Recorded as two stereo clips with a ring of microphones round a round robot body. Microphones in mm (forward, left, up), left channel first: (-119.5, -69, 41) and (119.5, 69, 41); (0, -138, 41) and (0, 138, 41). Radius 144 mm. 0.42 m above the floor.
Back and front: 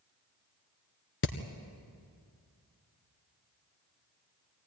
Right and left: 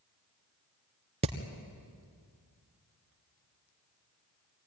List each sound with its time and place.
1.2 s hammering: 160° left, 1.6 m